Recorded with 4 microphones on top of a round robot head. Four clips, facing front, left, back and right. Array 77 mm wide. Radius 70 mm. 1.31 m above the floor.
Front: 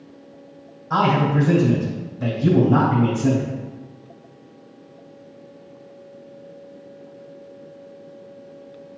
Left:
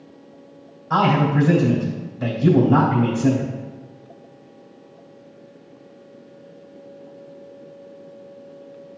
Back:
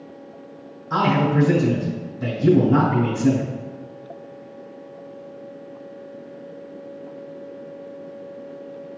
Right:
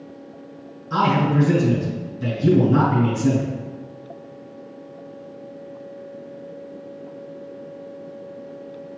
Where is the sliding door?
I don't hear a sliding door.